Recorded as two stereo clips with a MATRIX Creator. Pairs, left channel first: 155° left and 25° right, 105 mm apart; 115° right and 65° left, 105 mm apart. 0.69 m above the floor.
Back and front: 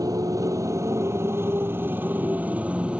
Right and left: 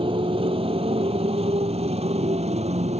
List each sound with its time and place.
0.0 s a motorcycle: 30° left; by 3.0 s 55° left